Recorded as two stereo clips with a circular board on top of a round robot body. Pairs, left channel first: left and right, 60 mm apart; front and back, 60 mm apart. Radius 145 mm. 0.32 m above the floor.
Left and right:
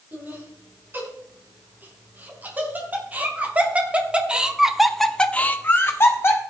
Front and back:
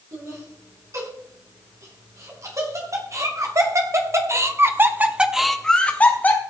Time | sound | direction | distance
0.1 | laughter | 145° right | 8 m